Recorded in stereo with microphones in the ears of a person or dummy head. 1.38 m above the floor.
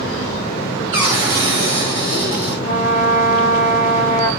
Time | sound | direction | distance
0.9 | a cupboard door | 10° right (ahead or behind) | 0.6 m
2.6 | a trumpet | 65° left (ahead or behind) | 1.3 m